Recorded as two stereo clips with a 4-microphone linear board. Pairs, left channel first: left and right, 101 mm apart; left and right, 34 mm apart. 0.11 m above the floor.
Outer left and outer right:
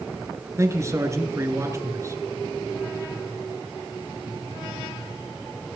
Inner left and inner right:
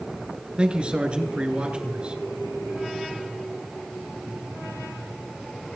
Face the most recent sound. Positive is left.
turn(degrees=-30)  # may be behind; listen again after turning